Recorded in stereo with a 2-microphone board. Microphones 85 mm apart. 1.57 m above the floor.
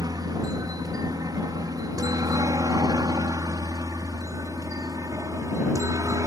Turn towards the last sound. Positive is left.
turn(degrees=-40)  # may be behind; listen again after turning